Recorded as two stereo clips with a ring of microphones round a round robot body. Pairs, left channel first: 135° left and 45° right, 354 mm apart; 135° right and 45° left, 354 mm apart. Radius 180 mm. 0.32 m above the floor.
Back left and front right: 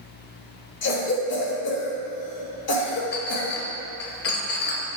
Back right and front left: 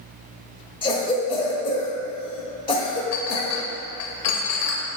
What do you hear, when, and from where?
0.8 s a cough: 160° left, 1.0 m
3.1 s a clink: 170° right, 0.8 m